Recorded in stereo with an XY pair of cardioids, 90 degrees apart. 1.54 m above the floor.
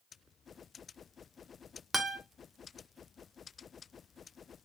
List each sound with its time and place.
1.9 s a guitar: 15° right, 1.0 m